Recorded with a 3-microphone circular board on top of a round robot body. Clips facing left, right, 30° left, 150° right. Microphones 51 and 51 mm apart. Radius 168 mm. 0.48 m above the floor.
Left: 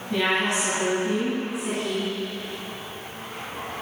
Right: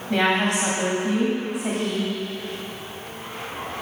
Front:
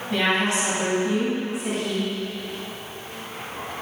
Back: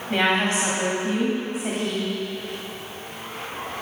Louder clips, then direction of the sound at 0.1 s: Right 3 dB, back 1 dB; 95° right.